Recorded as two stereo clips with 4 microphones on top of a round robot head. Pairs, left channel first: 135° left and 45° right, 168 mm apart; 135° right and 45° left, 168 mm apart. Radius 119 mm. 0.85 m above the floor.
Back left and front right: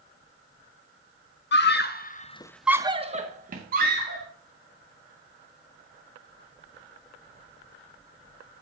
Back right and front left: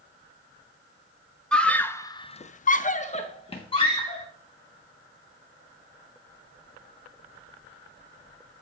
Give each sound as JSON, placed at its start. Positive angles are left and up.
{"t": 1.5, "sound": "a scream", "azimuth_deg": 140, "distance_m": 1.4}